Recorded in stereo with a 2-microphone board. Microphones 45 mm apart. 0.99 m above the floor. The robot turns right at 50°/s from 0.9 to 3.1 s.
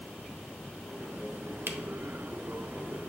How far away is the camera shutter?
About 0.6 m.